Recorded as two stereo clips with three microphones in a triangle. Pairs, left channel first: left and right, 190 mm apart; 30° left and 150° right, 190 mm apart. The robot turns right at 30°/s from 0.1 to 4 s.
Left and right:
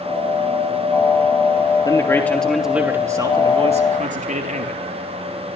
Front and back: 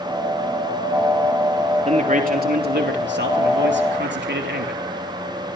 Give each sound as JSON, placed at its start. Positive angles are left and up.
{"t": 1.9, "sound": "a man speaking", "azimuth_deg": 160, "distance_m": 3.0}